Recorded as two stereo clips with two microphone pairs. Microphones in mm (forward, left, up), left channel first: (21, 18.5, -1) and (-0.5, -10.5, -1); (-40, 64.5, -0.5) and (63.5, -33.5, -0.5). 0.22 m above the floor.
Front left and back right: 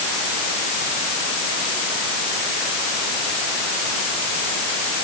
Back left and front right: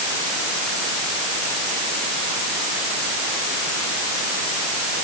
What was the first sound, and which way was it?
Only background noise.